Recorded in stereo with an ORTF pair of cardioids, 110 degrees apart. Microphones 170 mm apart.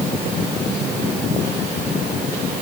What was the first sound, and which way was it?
Only background noise.